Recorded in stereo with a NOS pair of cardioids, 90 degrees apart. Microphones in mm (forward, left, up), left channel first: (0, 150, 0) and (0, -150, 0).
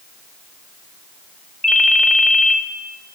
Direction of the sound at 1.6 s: Straight ahead.